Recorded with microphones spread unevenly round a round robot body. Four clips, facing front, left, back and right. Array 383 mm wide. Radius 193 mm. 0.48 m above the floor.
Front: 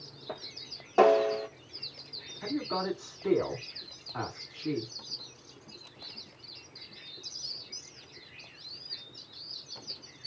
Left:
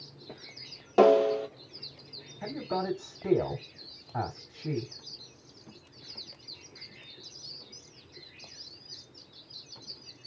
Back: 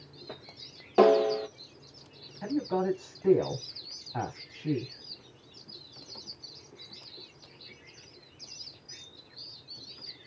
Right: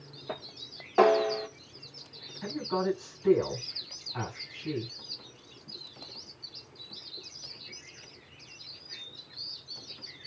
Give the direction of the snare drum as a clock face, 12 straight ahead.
8 o'clock.